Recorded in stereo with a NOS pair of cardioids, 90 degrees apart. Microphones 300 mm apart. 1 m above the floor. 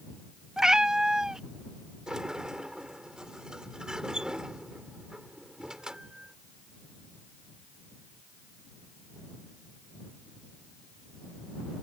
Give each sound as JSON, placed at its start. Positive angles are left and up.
{"t": 0.6, "sound": "a cat meowing", "azimuth_deg": 0}
{"t": 2.1, "sound": "a sliding door", "azimuth_deg": -5}